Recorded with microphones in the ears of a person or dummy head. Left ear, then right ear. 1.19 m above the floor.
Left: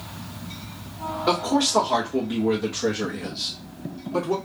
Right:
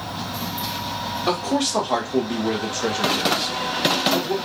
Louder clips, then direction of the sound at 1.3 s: Left 1 dB; 25° right (ahead or behind).